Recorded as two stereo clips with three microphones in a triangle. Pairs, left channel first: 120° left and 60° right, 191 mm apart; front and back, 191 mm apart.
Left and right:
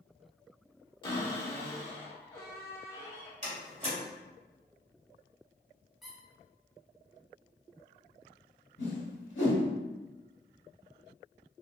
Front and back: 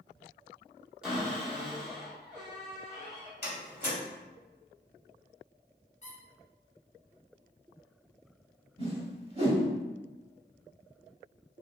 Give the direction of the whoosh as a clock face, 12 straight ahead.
8 o'clock.